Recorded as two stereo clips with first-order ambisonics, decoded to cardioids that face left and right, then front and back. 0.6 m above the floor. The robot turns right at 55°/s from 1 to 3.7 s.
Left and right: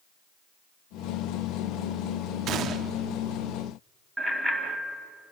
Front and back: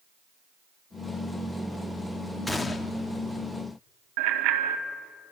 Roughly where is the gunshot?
Right.